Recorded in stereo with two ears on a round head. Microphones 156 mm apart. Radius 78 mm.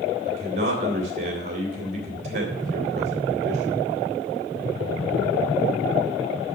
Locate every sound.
0.3 s a man speaking: 40° right (ahead or behind), 2.5 m